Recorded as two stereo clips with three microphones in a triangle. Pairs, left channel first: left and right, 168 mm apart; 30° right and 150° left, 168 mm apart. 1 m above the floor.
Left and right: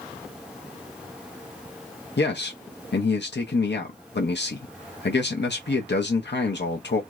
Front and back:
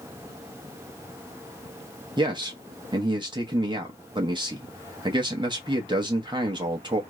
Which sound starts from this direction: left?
A man speaking, at 2.2 s.